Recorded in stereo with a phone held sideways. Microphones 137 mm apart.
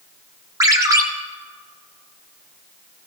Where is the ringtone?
25° right (ahead or behind), 1.3 m.